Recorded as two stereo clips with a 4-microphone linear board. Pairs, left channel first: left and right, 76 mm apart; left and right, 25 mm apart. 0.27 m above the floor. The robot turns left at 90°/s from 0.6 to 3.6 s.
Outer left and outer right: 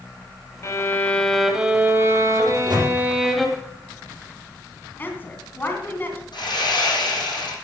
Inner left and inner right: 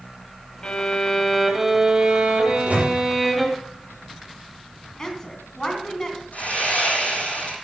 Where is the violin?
70° left, 1.7 m; by 3.5 s 175° left, 1.7 m.